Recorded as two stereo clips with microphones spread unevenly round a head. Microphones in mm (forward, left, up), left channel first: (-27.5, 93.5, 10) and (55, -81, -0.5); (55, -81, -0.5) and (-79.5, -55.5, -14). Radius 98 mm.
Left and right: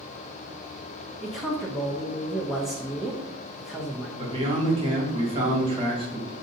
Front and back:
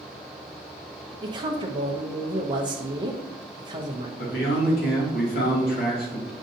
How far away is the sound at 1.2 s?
About 0.6 m.